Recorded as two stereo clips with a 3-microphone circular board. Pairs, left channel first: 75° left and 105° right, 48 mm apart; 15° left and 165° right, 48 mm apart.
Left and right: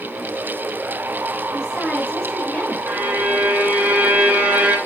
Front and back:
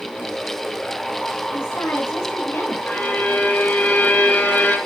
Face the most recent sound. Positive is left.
turn(degrees=-40)